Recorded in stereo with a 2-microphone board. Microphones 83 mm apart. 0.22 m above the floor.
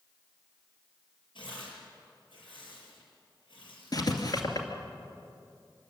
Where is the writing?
55° left (ahead or behind), 2.5 m.